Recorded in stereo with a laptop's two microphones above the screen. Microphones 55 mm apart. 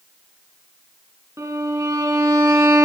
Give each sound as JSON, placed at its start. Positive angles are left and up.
{"t": 1.4, "sound": "a violin", "side_deg": -70, "distance_m": 3.0}